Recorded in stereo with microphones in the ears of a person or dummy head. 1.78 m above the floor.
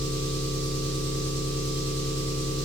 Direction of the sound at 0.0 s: 55° right (ahead or behind).